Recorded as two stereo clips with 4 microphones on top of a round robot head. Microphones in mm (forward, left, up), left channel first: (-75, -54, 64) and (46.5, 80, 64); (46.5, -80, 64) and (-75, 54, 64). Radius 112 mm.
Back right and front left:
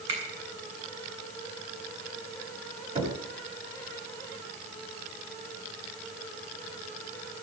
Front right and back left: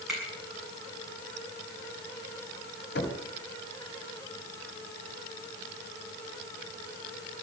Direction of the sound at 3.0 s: 10° right.